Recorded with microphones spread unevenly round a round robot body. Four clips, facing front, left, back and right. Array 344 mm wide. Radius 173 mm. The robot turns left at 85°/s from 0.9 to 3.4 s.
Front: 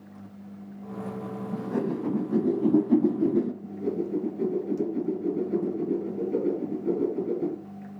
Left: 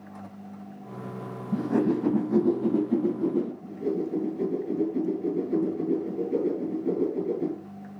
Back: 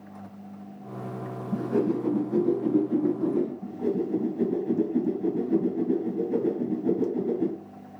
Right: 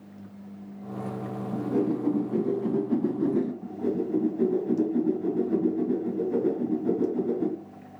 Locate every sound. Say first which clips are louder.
1.5 s a whoosh: left 2 dB, back 4 dB; 115° left, 1.2 m; by 3.5 s 45° right, 1.2 m
3.6 s a whoosh: right 1 dB, back 2 dB; 145° right, 2.5 m